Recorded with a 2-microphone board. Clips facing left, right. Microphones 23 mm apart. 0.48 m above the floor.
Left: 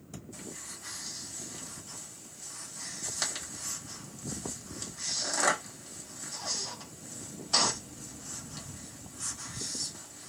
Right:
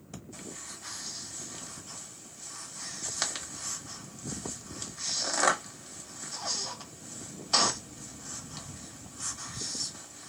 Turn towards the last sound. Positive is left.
turn(degrees=-15)  # may be behind; listen again after turning